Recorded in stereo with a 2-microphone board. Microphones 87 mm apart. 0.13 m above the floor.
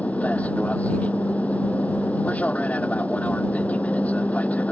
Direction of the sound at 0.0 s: 15° left (ahead or behind).